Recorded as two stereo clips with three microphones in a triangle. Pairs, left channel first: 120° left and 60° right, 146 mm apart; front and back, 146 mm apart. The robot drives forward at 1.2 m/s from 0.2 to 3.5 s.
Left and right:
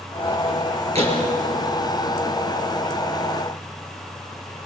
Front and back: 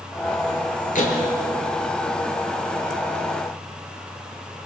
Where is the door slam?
20° right, 4.5 m.